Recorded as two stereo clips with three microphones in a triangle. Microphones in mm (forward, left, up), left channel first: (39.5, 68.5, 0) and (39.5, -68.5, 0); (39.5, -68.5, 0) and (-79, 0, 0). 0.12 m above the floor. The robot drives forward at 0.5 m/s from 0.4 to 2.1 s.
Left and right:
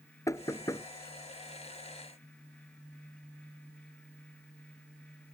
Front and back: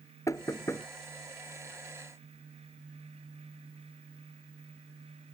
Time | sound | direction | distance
0.3 | knocking | 30° left | ?